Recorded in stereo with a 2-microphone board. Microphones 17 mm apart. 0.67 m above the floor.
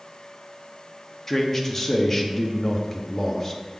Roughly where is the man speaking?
Left.